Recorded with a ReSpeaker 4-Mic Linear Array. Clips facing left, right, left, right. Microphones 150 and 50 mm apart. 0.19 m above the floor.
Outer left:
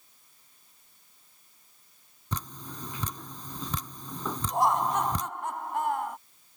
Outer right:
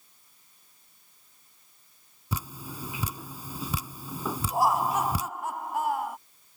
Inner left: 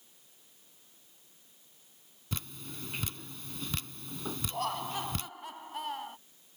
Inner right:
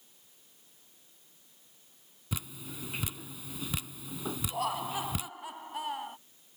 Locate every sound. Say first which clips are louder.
2.3 s dripping: outer right 2 dB, inner right 1 dB; 10° right (ahead or behind)
4.5 s laughter: even, inner right 1 dB; 5° right (ahead or behind)